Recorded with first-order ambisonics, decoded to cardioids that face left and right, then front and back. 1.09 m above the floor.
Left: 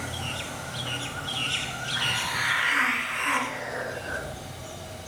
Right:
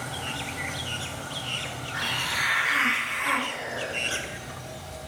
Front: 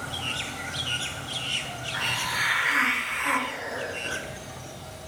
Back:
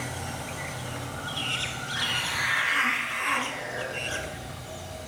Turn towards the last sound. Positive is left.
turn(degrees=-15)